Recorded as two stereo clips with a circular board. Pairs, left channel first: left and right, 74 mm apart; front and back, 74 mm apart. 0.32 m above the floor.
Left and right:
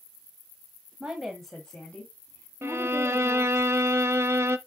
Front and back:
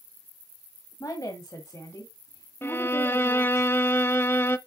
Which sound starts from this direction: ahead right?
A violin, at 2.6 s.